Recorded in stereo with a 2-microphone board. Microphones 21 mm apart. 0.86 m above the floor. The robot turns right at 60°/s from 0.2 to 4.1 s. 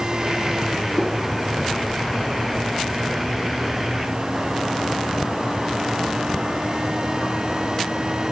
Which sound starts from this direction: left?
A whoosh, at 1.0 s.